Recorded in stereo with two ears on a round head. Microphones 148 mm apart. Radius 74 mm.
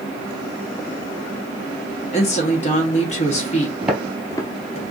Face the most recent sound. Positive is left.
turn(degrees=45)  # may be behind; listen again after turning